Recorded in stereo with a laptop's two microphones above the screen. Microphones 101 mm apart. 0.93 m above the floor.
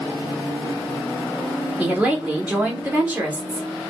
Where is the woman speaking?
15° right (ahead or behind), 1.6 m.